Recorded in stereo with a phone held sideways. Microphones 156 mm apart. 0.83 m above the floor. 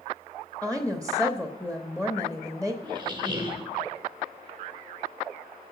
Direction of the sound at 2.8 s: 30° right (ahead or behind).